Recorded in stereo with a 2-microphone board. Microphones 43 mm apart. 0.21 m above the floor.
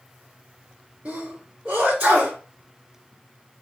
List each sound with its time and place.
1.1 s a sneeze: 30° right (ahead or behind), 1.4 m